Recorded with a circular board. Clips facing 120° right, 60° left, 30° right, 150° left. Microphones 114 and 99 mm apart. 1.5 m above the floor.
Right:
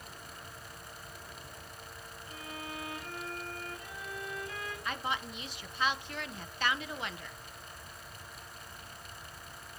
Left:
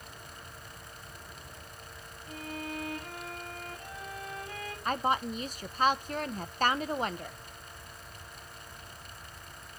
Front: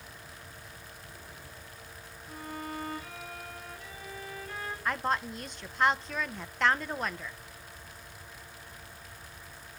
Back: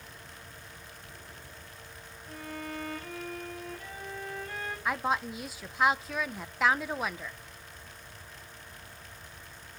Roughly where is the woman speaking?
Left.